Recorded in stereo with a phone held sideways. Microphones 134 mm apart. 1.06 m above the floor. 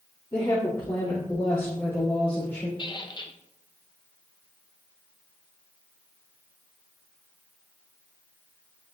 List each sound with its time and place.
0.3 s a woman speaking: 35° left (ahead or behind), 3 m; by 2.7 s 10° left (ahead or behind), 3.5 m
2.8 s a squeak: 35° left (ahead or behind), 0.6 m